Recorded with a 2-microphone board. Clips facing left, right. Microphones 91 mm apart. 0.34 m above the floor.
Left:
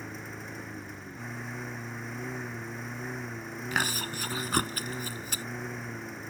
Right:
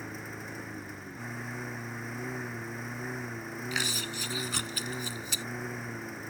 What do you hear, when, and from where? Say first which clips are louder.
0.0 s a lawn mower: even; centre (ahead or behind)
3.7 s chewing: left 5 dB; 50° left (ahead or behind)